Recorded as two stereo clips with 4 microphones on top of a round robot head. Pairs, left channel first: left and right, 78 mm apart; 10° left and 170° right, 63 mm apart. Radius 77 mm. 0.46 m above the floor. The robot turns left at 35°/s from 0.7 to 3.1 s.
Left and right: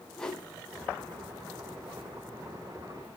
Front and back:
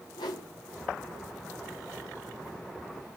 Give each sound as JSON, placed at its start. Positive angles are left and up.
{"t": 0.2, "sound": "a whoosh", "azimuth_deg": 10, "distance_m": 1.8}